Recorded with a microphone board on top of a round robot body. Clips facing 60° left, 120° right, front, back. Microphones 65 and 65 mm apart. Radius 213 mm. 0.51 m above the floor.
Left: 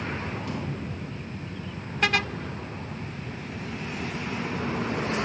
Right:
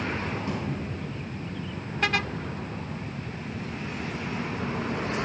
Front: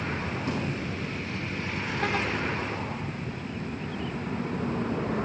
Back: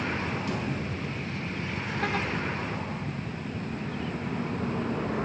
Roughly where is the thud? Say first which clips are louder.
Right 1 dB, front 1 dB; ahead right.